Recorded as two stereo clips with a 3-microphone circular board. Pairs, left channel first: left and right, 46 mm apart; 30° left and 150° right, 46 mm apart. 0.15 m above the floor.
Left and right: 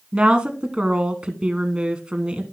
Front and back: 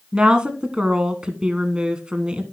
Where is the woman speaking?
115° right, 1.1 m.